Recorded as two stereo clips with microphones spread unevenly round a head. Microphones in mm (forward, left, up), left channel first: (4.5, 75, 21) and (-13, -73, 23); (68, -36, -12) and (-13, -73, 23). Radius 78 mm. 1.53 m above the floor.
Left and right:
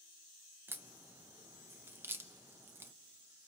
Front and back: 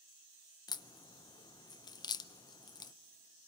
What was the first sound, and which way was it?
A crack, 25° right.